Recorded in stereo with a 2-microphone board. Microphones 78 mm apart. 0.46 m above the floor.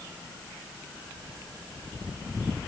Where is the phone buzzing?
I don't hear a phone buzzing.